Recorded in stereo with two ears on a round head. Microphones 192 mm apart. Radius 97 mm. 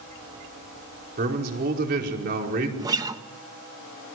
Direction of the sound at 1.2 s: 45° right (ahead or behind).